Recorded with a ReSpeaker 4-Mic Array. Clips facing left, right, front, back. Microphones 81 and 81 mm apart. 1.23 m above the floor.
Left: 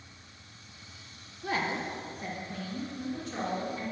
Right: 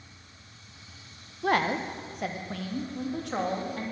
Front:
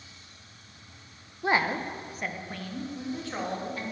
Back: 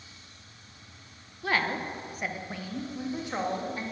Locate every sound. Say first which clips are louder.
1.4 s a woman speaking: right 6 dB, front 3 dB; 65° right, 0.9 m; by 3.8 s 110° right, 2.5 m